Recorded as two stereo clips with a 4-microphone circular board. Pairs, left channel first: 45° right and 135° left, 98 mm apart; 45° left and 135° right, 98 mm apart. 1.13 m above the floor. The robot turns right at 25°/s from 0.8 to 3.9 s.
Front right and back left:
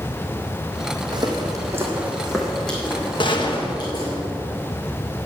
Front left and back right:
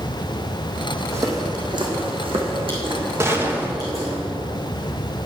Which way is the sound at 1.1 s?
165° left.